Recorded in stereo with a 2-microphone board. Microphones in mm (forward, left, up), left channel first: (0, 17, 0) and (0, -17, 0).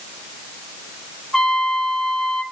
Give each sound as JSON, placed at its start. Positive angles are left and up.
{"t": 1.3, "sound": "a trumpet", "side_deg": 20, "distance_m": 1.8}